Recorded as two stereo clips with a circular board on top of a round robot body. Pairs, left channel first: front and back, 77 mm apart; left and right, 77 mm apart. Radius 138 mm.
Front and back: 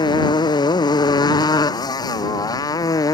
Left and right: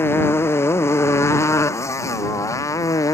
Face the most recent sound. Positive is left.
turn(degrees=40)